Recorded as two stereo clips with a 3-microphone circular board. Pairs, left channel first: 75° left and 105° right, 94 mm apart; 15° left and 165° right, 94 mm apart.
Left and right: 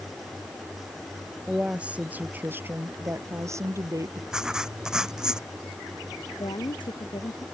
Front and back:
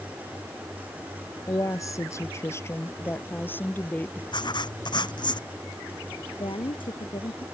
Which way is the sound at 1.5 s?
25° right.